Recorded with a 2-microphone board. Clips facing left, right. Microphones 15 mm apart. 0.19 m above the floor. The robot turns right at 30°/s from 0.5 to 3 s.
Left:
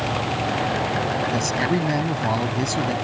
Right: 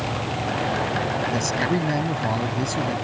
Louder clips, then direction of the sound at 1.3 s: Left 1 dB; centre (ahead or behind).